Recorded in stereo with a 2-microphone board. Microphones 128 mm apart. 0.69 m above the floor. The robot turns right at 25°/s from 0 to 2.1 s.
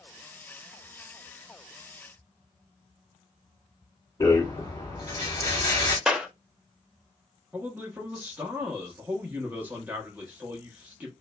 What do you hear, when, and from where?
4.2 s a rattle: 30° left (ahead or behind), 1.6 m
6.1 s a clap: 5° right (ahead or behind), 0.5 m
7.5 s a man speaking: 15° right (ahead or behind), 0.7 m